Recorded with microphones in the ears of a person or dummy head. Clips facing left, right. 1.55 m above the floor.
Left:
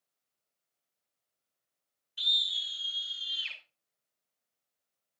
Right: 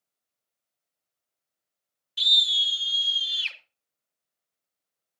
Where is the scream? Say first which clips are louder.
Right 9 dB; 80° right, 3.5 m; by 3.6 s 75° right (ahead or behind), 5 m.